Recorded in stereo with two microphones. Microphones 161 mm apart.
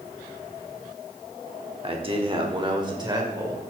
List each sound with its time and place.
1.8 s a man speaking: 35° right (ahead or behind), 1.4 m; by 3.6 s 25° right (ahead or behind), 2.5 m